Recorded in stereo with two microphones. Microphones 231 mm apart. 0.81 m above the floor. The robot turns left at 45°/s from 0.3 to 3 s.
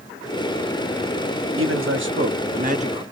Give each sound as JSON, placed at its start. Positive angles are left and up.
{"t": 1.6, "sound": "a man speaking", "azimuth_deg": -90, "distance_m": 0.9}